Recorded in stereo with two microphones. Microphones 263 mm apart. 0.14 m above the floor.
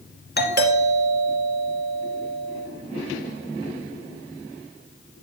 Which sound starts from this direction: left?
A doorbell, at 0.4 s.